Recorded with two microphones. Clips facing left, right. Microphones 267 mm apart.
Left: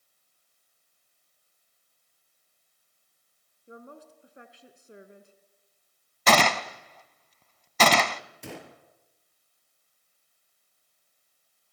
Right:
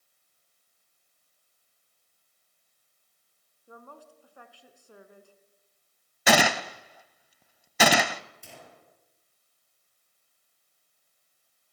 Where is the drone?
I don't hear a drone.